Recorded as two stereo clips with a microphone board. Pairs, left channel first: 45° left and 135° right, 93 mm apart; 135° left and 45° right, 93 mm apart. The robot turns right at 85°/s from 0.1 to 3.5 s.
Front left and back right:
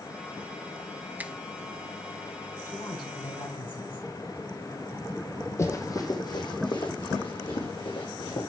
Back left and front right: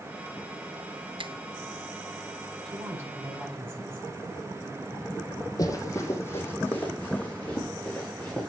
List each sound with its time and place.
1.2 s a finger snap: 65° right, 0.7 m; by 1.4 s 50° right, 0.7 m
2.6 s a woman speaking: 20° right, 6 m; by 4.1 s 55° left, 6 m
5.6 s running footsteps: 95° left, 1.7 m; by 8.5 s 55° left, 4.5 m